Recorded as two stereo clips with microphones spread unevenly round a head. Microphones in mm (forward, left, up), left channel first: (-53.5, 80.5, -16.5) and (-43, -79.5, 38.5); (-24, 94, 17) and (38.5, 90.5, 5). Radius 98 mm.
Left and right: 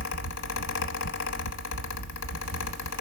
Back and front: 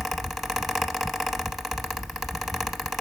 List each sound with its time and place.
0.0 s a fan: 90° left, 0.7 m